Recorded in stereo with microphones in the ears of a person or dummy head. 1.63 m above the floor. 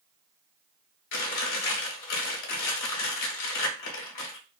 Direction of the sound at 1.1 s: 70° left (ahead or behind).